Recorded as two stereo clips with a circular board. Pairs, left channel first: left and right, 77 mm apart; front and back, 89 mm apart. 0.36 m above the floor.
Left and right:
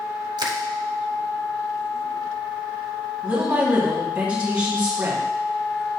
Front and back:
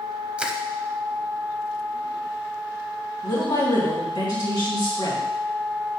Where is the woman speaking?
20° right, 3 m.